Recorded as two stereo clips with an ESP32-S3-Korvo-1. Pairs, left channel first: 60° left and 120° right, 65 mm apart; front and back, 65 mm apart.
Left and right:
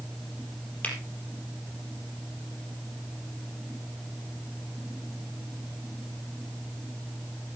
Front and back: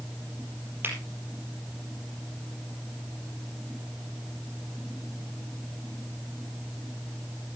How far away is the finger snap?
About 4 m.